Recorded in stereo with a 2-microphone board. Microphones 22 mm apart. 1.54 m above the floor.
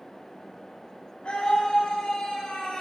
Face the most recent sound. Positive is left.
turn(degrees=45)  # may be behind; listen again after turning